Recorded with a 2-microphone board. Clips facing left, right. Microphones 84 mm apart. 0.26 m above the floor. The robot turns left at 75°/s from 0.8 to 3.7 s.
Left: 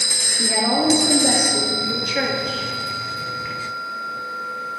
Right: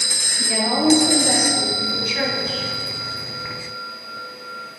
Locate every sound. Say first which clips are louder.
0.4 s a woman speaking: even; 130° left, 4.5 m; by 2.7 s 10° right, 4.5 m